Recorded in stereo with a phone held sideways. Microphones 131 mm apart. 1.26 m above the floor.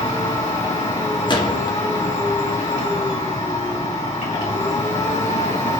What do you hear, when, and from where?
0.0 s a machine running: 60° left (ahead or behind), 1.9 m
1.3 s a gunshot: 35° left (ahead or behind), 0.7 m